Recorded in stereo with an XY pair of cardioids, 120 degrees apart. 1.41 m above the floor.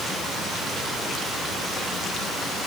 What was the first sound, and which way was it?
Only background noise.